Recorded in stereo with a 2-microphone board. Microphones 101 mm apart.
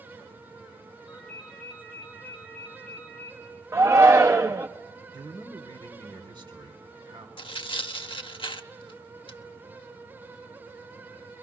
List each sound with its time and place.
1.1 s a ringtone: 5° right (ahead or behind), 8.5 m
3.7 s a shout: 30° right (ahead or behind), 0.5 m
5.1 s a man speaking: 45° right (ahead or behind), 3 m
7.4 s tearing paper: 60° left (ahead or behind), 0.8 m